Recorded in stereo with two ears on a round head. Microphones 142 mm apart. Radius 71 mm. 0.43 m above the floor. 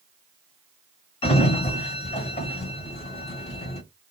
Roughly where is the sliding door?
Left.